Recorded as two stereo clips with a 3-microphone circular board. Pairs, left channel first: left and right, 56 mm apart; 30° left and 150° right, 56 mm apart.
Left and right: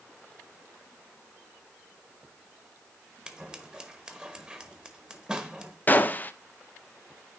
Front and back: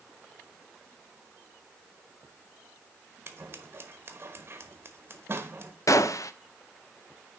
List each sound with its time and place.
3.3 s scissors: 160° right, 1.1 m
5.9 s a gunshot: 35° left, 0.5 m